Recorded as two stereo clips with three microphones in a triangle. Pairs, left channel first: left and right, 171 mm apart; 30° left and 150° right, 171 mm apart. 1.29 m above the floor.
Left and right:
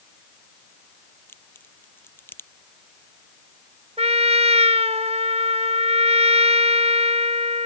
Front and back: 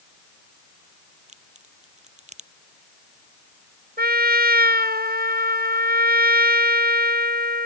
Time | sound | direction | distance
1.3 | a crack | 165° left | ?
4.0 | a trumpet | 140° right | ?